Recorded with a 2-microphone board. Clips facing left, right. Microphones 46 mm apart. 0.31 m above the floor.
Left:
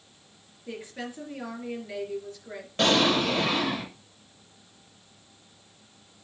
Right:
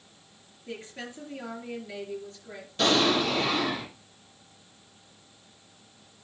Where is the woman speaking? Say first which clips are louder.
Left 2 dB; 10° left (ahead or behind), 4 m.